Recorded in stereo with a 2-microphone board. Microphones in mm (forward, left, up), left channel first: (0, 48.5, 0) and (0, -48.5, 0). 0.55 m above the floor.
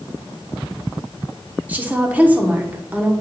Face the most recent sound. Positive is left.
turn(degrees=-15)  # may be behind; listen again after turning